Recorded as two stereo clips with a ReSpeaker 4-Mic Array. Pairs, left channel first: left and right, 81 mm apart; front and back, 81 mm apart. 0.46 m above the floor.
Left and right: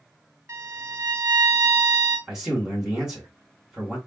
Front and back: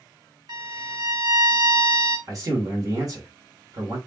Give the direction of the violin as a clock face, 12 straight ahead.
5 o'clock.